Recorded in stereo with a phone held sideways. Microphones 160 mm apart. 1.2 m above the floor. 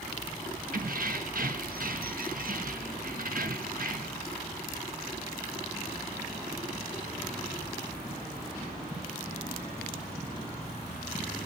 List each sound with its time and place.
0.7 s keys jangling: 60° right (ahead or behind), 1.2 m